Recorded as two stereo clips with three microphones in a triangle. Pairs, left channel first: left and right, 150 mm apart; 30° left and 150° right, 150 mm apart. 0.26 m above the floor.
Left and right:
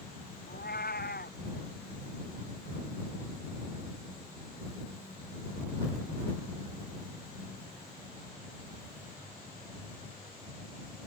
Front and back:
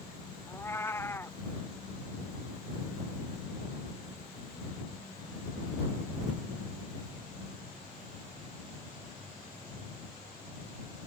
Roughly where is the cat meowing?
Left.